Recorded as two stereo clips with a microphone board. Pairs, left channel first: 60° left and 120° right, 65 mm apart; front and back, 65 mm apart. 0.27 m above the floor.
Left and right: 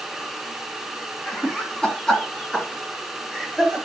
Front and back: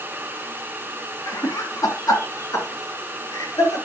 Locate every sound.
1.3 s laughter: 15° right, 2.5 m; by 3.8 s 20° right, 5.5 m